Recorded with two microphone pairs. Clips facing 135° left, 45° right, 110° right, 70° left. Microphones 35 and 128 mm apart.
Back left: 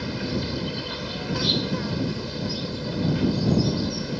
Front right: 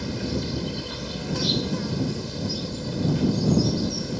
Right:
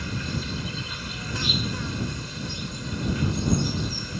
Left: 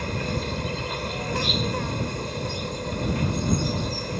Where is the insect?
75° left.